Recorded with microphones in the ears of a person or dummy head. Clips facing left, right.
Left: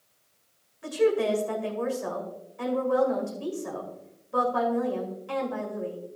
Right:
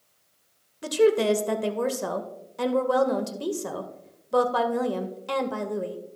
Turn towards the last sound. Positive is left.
turn(degrees=-75)  # may be behind; listen again after turning